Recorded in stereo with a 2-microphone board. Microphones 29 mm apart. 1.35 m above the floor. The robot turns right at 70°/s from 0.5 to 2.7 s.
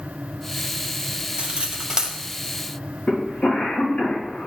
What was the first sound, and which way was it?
Cutlery clinking, 45° right (ahead or behind).